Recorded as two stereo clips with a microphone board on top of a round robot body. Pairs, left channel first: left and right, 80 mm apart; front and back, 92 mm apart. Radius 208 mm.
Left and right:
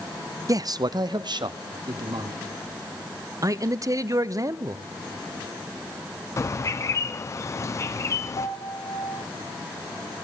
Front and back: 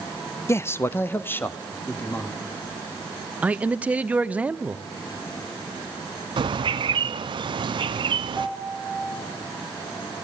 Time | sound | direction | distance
0.5 | a man speaking | 55° right | 0.6 m
3.4 | a man speaking | 110° right | 1.0 m
6.4 | a bird | 145° left | 0.5 m
8.4 | a piano | 80° left | 4 m